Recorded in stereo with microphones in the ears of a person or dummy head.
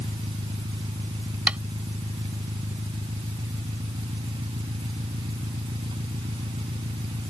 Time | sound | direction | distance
0.0 | an engine running | 30° right (ahead or behind) | ?
1.5 | tapping | 5° right (ahead or behind) | ?